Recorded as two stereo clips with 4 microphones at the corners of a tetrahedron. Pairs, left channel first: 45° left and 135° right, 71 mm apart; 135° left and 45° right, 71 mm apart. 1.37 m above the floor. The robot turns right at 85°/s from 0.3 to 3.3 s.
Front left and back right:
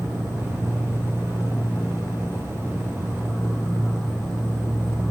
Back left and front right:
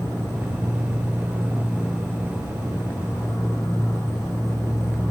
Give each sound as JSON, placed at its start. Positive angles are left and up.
{"t": 0.0, "sound": "an insect", "azimuth_deg": -75, "distance_m": 3.0}